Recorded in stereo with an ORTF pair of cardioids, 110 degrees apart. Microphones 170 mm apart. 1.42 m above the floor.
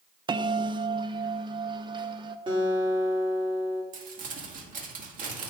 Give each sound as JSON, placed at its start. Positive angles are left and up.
{"t": 0.3, "sound": "a bell", "azimuth_deg": -25, "distance_m": 0.7}
{"t": 2.5, "sound": "a guitar", "azimuth_deg": -30, "distance_m": 2.5}
{"t": 3.9, "sound": "crumpling", "azimuth_deg": -50, "distance_m": 2.0}